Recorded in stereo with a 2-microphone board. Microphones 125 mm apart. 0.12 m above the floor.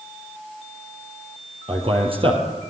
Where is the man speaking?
45° right (ahead or behind), 4 m.